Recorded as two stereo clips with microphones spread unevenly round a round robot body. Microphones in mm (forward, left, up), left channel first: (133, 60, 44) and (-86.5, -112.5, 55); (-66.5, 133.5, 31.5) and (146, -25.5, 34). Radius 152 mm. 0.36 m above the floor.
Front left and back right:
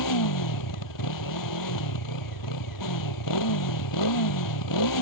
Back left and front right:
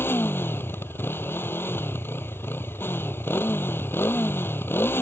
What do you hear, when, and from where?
0.0 s a motorcycle: 60° left